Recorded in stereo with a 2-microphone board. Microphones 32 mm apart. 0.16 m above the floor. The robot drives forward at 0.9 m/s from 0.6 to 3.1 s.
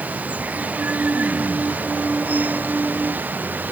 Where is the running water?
55° right (ahead or behind); by 3.7 s 65° right (ahead or behind).